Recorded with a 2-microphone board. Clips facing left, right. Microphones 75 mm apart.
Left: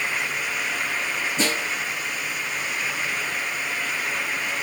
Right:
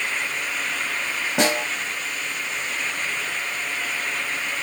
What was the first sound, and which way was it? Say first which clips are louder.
A snare drum: right 6 dB; 75° right (ahead or behind).